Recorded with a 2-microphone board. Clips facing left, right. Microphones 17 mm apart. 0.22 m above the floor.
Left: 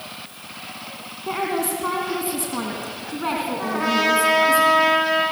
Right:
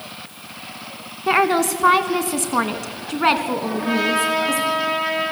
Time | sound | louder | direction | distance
1.3 | a woman speaking | right 7 dB | 55° right (ahead or behind) | 2 m
3.6 | a trumpet | left 1 dB | 80° left | 8 m